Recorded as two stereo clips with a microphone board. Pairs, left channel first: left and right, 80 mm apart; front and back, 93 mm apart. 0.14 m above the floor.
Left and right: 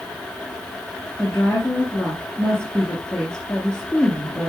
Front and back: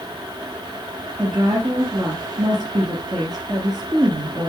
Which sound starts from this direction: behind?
A woman speaking, at 1.2 s.